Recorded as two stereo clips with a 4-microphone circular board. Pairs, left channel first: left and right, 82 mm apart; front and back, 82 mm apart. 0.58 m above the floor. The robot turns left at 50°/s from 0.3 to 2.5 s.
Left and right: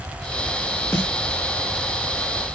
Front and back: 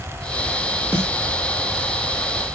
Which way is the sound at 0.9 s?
150° left.